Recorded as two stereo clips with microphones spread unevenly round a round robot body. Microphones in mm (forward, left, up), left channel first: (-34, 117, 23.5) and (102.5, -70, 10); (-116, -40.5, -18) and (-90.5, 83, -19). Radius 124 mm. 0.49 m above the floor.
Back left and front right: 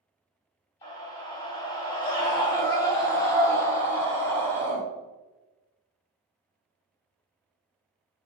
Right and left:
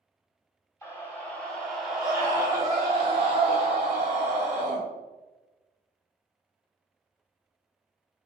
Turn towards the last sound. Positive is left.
turn(degrees=45)